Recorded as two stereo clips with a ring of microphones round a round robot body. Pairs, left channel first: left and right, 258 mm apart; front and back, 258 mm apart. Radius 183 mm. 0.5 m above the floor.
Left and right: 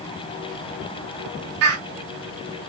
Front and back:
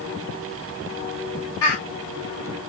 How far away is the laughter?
About 2.5 m.